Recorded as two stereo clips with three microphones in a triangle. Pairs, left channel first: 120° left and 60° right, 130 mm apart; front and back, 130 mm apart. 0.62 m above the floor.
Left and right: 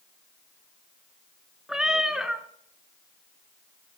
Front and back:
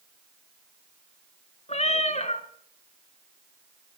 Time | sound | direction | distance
1.7 | a cat meowing | 25° left | 1.1 m